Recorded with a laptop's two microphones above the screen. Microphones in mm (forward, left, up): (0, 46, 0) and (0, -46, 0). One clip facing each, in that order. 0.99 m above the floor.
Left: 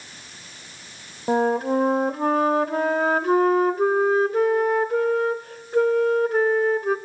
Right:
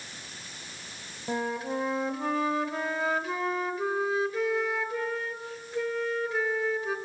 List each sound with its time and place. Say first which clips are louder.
1.3 s a flute: left 11 dB; 50° left (ahead or behind), 1.1 m